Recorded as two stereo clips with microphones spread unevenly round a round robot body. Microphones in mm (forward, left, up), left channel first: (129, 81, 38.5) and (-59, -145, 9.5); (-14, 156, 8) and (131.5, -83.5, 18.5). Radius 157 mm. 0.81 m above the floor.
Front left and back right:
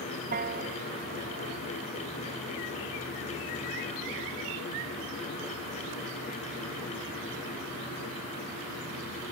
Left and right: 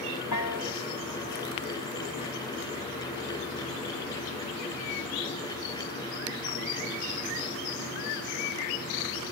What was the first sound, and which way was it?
A piano, 165° left.